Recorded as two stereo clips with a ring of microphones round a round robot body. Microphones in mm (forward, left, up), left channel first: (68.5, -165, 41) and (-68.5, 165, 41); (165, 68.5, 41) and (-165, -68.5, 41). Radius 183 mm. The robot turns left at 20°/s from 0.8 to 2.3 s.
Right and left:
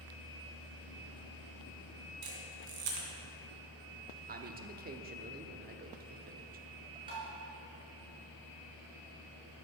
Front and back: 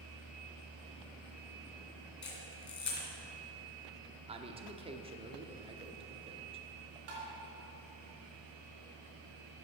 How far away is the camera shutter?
About 2.5 m.